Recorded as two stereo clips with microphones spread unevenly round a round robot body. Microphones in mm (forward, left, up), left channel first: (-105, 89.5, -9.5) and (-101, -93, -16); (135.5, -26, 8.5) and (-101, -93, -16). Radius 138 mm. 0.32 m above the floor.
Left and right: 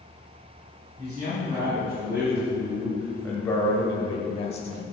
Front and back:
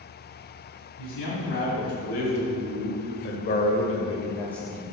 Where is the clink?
No clink in this recording.